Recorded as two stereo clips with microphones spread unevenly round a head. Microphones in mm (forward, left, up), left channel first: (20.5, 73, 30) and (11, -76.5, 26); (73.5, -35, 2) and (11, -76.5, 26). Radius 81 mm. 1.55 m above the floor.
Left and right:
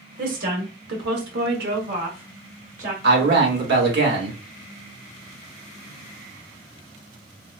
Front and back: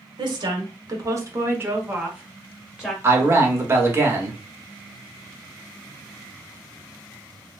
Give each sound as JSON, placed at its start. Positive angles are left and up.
{"t": 0.2, "sound": "a woman speaking", "azimuth_deg": -125, "distance_m": 1.0}
{"t": 3.0, "sound": "a man speaking", "azimuth_deg": -90, "distance_m": 1.2}